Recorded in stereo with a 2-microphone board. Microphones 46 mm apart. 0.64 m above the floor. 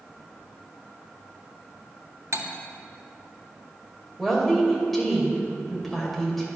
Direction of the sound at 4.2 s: Centre (ahead or behind).